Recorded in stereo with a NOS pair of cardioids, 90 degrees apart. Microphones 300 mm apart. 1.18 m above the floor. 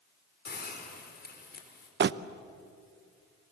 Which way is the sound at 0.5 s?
35° left.